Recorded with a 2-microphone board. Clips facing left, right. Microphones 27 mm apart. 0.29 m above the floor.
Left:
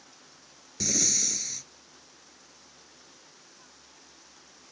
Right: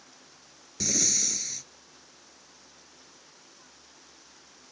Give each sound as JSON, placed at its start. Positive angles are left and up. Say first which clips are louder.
{"t": 0.8, "sound": "breathing", "louder": "even", "side_deg": 0}